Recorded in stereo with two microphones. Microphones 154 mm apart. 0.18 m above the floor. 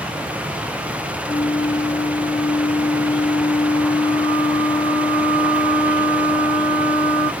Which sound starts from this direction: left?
A flute, at 1.3 s.